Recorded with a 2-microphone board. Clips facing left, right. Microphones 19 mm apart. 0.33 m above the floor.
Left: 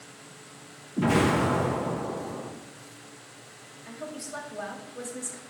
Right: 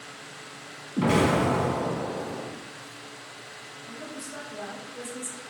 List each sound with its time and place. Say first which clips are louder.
1.0 s an explosion: right 1 dB; 40° right (ahead or behind), 1.4 m
3.9 s a woman speaking: left 2 dB; 20° left (ahead or behind), 0.8 m